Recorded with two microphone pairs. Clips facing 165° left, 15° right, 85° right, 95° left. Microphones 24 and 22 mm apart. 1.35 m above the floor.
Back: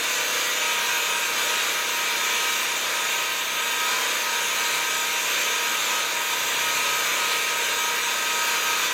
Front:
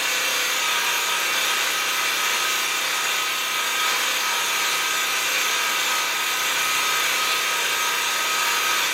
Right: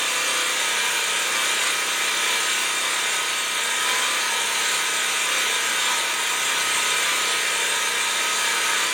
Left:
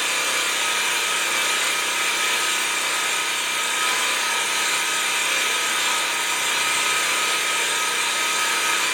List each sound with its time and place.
0.0 s an engine running: straight ahead, 0.9 m